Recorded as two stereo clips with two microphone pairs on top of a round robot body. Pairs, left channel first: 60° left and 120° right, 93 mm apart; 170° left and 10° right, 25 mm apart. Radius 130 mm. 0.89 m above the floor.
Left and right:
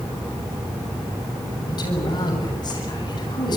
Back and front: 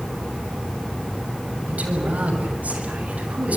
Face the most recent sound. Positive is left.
turn(degrees=15)